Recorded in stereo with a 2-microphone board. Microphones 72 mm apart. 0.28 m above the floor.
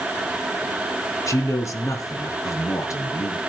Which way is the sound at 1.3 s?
50° left (ahead or behind).